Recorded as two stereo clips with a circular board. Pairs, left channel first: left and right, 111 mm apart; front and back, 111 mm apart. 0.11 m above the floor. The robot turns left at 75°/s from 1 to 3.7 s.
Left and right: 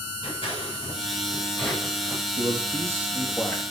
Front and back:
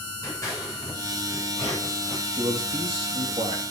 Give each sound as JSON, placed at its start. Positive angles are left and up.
{"t": 0.2, "sound": "scissors", "azimuth_deg": 60, "distance_m": 8.5}
{"t": 2.3, "sound": "a man speaking", "azimuth_deg": -110, "distance_m": 3.5}